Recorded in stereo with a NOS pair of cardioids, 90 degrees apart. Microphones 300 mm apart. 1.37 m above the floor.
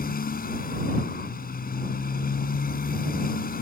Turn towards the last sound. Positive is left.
turn(degrees=30)